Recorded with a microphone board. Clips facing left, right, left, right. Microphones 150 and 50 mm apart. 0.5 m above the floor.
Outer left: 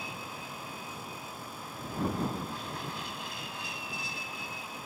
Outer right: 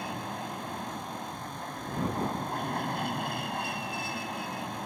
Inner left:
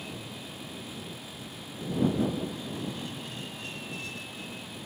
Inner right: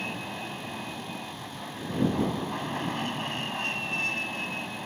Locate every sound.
0.0 s an aircraft: 55° right (ahead or behind)